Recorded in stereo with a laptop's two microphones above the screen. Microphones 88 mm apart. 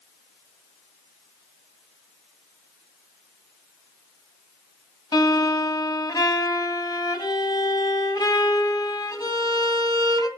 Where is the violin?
45° left (ahead or behind), 1.6 m.